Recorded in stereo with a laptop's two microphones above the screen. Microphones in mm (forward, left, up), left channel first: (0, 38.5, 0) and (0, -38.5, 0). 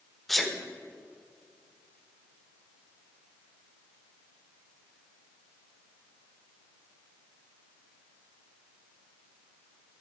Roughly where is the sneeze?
Centre.